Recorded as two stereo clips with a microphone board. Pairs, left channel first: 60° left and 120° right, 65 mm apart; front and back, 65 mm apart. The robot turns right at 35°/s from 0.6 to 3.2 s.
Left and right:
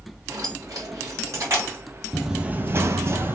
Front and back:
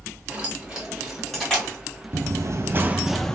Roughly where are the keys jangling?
Right.